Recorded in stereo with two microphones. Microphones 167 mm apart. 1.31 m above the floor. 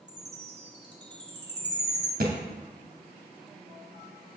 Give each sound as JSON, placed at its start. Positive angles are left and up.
{"t": 0.1, "sound": "a chime", "side_deg": -85, "distance_m": 1.7}
{"t": 2.2, "sound": "a thud", "side_deg": -65, "distance_m": 2.5}